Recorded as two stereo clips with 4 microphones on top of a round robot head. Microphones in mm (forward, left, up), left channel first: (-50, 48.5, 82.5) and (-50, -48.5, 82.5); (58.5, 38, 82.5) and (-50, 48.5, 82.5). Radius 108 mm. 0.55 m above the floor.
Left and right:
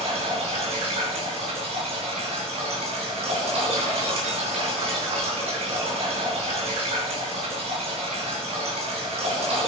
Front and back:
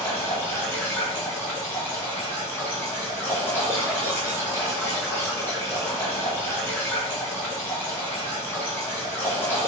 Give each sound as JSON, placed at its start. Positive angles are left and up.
{"t": 0.0, "sound": "running water", "azimuth_deg": -75, "distance_m": 3.5}